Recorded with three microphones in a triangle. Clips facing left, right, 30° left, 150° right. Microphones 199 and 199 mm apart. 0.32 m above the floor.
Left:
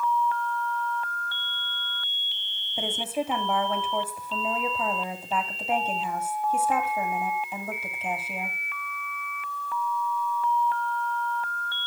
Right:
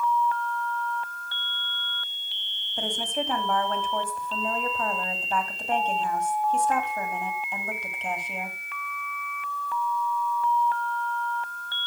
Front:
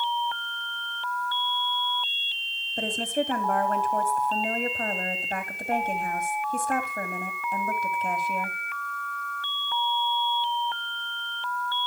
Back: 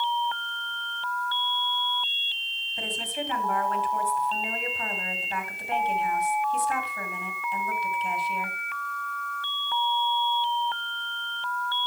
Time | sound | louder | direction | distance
2.8 | a woman speaking | left 1 dB, front 7 dB | 10° left | 2.5 m